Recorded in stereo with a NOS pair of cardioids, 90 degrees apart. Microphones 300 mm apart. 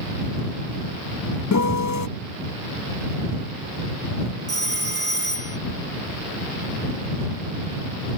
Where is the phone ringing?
35° right.